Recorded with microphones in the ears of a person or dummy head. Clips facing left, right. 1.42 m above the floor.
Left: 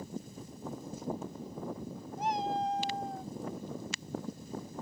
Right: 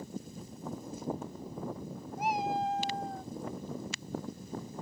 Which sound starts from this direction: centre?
A cat meowing, at 2.2 s.